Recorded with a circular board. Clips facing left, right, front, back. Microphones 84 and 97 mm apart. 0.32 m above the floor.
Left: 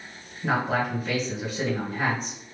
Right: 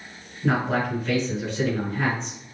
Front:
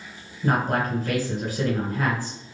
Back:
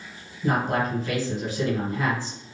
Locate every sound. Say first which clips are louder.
0.4 s a man speaking: right 1 dB, front 1 dB; 15° left, 2 m